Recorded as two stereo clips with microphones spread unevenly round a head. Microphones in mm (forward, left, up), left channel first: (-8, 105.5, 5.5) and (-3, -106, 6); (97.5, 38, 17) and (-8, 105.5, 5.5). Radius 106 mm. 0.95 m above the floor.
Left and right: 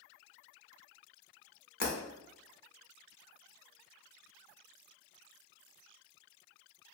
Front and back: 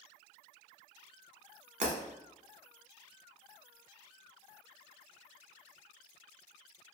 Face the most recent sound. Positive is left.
turn(degrees=135)